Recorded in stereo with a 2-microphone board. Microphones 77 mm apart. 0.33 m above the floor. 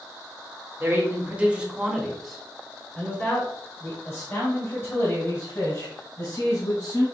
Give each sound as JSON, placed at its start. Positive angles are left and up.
{"t": 0.8, "sound": "a man speaking", "side_deg": -30, "distance_m": 1.2}